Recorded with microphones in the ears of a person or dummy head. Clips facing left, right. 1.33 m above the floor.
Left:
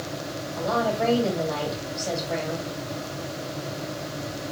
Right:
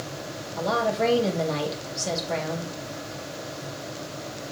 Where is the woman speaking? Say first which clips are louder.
Even; 30° right (ahead or behind), 1.6 m.